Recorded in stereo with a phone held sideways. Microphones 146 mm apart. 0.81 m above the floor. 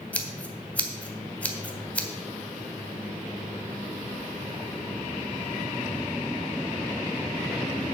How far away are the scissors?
About 1.3 m.